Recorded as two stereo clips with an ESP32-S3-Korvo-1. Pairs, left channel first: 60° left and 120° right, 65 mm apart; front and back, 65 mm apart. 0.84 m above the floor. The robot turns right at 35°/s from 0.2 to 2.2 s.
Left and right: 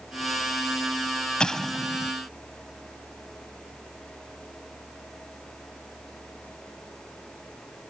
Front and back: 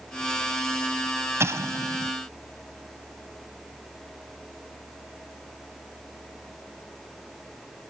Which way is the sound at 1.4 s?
135° left.